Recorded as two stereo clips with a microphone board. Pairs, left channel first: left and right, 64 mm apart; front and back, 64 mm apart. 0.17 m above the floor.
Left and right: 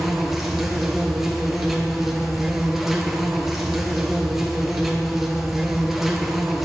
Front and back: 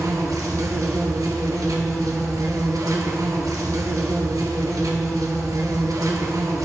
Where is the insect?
175° right, 1.8 m.